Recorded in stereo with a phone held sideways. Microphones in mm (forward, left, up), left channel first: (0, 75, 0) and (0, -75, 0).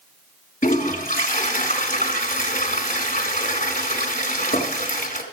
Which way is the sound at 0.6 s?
60° left (ahead or behind).